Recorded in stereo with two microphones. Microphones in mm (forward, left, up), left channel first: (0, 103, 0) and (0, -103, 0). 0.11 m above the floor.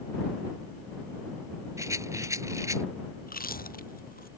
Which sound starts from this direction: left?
Chewing, at 3.2 s.